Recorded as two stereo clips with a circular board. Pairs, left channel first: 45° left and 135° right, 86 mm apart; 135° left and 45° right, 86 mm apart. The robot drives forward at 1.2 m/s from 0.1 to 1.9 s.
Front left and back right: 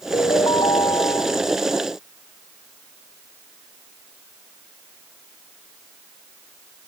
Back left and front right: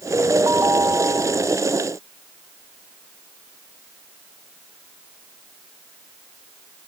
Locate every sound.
0.1 s a ringtone: 15° left